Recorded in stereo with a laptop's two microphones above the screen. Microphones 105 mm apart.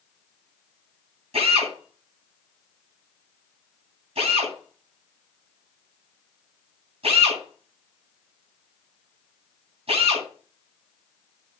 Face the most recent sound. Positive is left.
turn(degrees=-80)